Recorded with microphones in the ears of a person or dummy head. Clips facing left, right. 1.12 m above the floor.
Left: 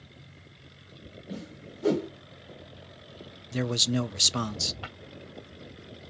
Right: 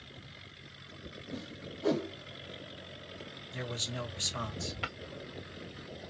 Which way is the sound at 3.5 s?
50° left (ahead or behind).